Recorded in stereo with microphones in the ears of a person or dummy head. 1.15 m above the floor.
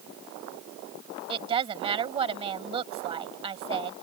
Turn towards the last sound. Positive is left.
turn(degrees=-25)  # may be behind; listen again after turning